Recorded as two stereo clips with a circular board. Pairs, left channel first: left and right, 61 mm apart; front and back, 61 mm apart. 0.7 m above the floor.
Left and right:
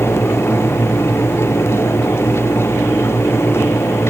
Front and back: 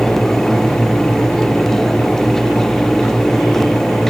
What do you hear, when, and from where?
Only background noise.